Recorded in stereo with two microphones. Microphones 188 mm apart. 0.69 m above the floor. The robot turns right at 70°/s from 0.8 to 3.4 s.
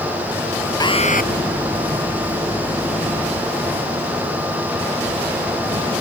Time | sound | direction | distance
0.8 | an alarm | 20° left | ?